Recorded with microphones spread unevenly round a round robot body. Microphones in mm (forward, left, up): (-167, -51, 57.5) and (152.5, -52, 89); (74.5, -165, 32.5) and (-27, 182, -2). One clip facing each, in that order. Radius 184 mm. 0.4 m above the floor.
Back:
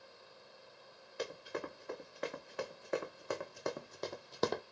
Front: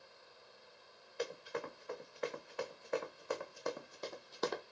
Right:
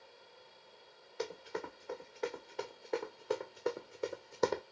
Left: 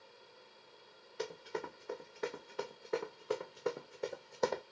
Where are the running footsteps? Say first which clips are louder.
Even, even; 175° left, 2 m; by 4.6 s 130° right, 0.6 m.